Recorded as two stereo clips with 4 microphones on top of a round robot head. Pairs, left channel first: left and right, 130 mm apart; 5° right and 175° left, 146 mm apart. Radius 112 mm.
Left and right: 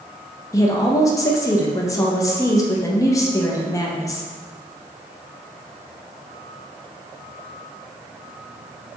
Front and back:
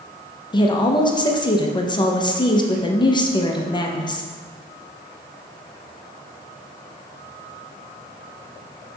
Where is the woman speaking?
40° left, 0.6 m.